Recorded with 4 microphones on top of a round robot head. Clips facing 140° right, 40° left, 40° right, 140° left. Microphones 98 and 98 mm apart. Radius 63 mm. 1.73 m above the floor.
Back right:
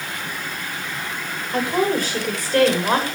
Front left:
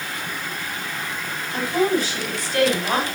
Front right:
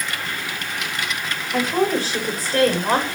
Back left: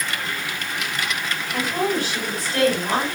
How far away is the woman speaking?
About 9 m.